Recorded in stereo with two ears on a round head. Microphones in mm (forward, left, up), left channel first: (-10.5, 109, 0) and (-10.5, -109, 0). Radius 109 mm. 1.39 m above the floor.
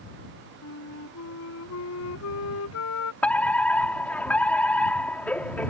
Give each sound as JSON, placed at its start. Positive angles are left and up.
{"t": 0.6, "sound": "a flute", "side_deg": 70}
{"t": 3.2, "sound": "a fire alarm", "side_deg": 5}